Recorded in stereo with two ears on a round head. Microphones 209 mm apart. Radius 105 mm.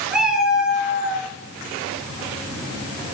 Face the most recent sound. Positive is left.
turn(degrees=-5)  # may be behind; listen again after turning